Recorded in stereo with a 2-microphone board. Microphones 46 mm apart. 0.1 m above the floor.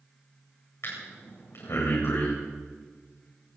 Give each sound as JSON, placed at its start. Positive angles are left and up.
{"t": 0.8, "sound": "breathing", "side_deg": 65, "distance_m": 9.5}